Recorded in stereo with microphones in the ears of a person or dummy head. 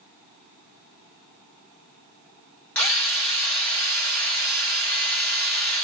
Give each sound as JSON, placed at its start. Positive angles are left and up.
{"t": 2.8, "sound": "a drill", "side_deg": 5, "distance_m": 1.2}